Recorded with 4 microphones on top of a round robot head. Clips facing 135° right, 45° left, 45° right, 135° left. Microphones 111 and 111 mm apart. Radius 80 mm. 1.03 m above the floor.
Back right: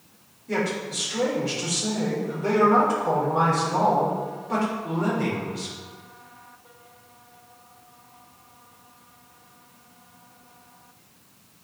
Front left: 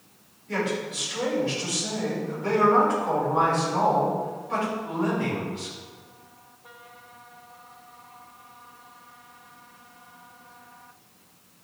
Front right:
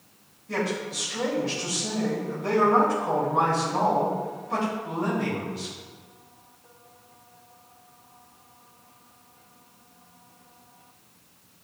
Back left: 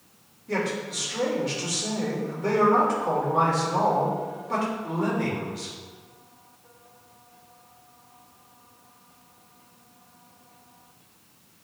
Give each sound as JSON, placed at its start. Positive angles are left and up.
{"t": 0.5, "sound": "a man speaking", "azimuth_deg": 175, "distance_m": 3.5}